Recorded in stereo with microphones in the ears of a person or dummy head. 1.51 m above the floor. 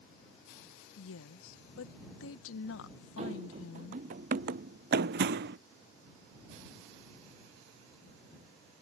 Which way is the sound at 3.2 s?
40° right (ahead or behind).